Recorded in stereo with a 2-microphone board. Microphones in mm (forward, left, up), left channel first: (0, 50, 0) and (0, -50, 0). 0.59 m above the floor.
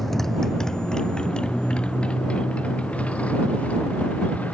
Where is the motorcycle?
Centre (ahead or behind); by 4.5 s 15° left (ahead or behind).